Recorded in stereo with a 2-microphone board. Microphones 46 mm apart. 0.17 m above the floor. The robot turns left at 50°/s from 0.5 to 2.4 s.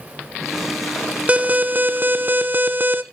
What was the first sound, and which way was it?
An alarm, 50° right.